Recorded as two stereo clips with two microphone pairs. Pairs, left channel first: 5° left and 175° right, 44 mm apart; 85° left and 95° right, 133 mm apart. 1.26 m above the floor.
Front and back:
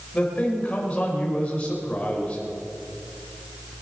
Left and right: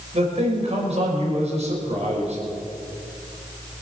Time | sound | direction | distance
0.1 | a man speaking | 60° right | 5 m